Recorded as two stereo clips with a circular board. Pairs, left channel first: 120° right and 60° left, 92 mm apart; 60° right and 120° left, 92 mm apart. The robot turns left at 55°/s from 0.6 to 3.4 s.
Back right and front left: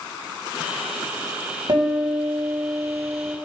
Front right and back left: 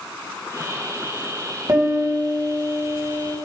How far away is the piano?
About 3.5 m.